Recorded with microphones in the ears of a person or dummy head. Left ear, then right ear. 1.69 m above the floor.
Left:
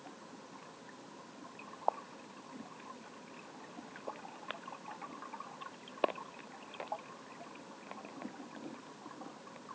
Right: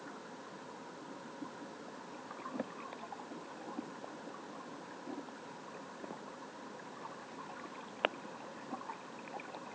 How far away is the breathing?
No breathing in this recording.